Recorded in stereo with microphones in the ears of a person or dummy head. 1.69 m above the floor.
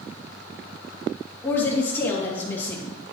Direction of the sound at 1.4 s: 15° left (ahead or behind).